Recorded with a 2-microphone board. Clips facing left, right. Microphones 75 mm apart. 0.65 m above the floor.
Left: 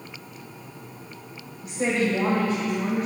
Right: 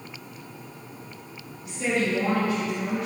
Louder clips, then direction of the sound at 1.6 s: Left 2 dB; 70° left (ahead or behind).